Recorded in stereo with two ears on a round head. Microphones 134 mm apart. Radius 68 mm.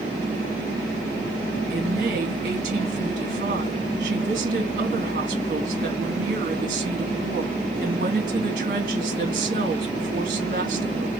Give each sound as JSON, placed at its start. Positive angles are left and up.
{"t": 1.7, "sound": "a woman speaking", "side_deg": -55, "distance_m": 2.0}